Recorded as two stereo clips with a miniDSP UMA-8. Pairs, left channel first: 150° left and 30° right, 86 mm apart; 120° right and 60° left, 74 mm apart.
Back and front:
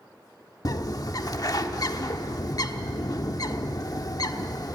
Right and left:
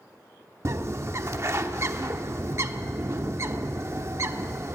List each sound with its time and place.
0.7 s a bird: 110° left, 0.9 m